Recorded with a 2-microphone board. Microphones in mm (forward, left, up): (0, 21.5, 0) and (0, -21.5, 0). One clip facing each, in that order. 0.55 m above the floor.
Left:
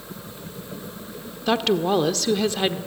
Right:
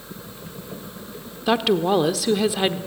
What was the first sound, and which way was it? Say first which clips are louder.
A woman speaking: right 1 dB; 10° right (ahead or behind).